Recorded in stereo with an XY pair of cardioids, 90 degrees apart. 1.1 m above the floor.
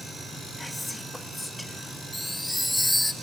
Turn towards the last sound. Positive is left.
turn(degrees=10)